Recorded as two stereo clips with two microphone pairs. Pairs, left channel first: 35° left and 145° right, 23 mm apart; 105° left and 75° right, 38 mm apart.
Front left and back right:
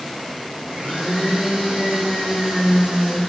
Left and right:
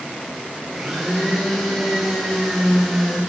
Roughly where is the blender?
Behind.